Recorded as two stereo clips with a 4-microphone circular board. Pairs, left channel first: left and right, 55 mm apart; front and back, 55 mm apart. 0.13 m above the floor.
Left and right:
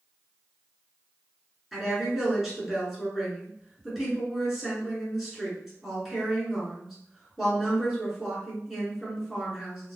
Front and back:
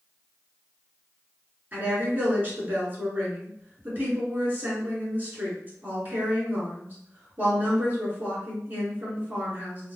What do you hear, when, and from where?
1.7 s a woman speaking: straight behind, 1.5 m